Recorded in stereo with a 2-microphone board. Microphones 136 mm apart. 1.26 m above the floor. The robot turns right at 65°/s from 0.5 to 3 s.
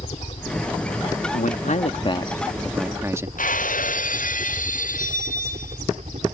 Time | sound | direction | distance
0.0 | a helicopter | 130° left | ?
1.3 | a man speaking | 90° left | ?
3.4 | breaking glass | 85° left | ?